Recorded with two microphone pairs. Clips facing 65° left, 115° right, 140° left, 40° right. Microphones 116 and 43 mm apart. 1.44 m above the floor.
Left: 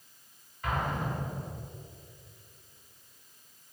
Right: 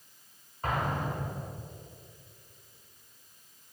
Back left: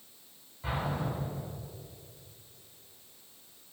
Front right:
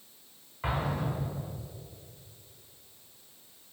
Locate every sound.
0.6 s an explosion: 60° right, 2.5 m